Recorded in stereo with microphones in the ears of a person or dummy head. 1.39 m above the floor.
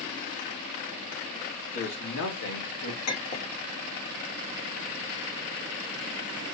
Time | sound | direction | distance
1.7 | a man speaking | 60° left (ahead or behind) | 1.6 m
3.1 | a clink | 45° left (ahead or behind) | 1.1 m